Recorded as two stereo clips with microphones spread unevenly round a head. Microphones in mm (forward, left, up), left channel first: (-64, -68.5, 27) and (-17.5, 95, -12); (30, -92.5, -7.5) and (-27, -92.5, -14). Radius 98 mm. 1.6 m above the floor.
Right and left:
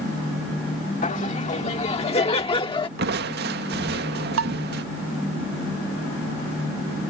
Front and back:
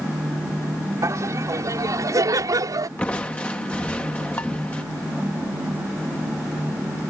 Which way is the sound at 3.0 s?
55° left.